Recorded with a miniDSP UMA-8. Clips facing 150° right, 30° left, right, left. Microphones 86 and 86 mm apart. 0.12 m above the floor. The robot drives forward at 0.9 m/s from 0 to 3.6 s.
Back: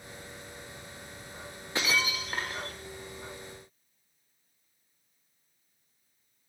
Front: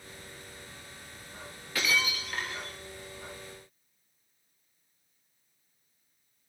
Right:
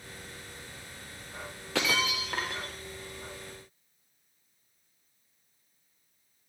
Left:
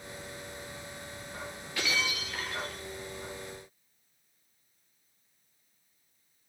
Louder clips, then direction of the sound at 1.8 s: Even, right 4 dB; 85° right.